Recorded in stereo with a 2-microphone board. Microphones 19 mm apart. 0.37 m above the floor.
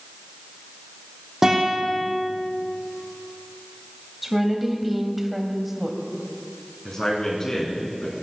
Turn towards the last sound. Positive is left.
turn(degrees=30)  # may be behind; listen again after turning